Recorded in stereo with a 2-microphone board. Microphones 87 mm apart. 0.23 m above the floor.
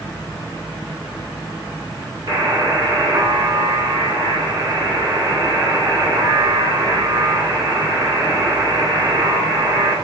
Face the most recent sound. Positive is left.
turn(degrees=-50)  # may be behind; listen again after turning